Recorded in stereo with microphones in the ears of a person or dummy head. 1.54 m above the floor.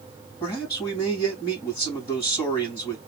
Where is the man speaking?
35° left (ahead or behind), 2.5 m.